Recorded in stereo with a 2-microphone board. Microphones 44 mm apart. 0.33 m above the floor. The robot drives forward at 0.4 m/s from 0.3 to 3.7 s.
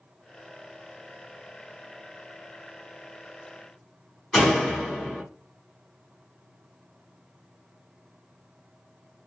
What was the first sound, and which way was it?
A door slam, 10° left (ahead or behind).